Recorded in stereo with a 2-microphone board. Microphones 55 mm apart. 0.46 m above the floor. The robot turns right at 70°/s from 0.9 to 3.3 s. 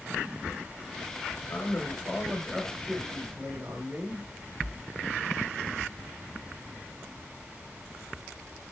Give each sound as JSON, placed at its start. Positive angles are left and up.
{"t": 1.5, "sound": "a man speaking", "azimuth_deg": 110, "distance_m": 1.1}